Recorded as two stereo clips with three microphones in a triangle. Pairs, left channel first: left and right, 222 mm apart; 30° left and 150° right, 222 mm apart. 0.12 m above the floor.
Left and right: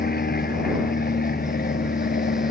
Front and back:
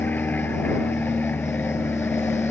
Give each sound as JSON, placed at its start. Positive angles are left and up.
{"t": 0.0, "sound": "an aircraft", "azimuth_deg": 110}